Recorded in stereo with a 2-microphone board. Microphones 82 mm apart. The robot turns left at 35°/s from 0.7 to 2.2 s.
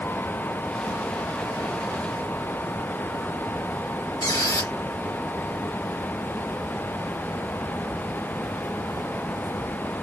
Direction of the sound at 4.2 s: 55° left (ahead or behind).